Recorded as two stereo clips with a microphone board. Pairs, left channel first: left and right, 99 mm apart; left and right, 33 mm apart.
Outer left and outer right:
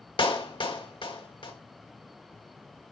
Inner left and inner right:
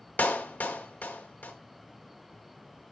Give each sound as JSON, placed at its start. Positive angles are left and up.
{"t": 0.2, "sound": "a clap", "side_deg": 60, "distance_m": 1.5}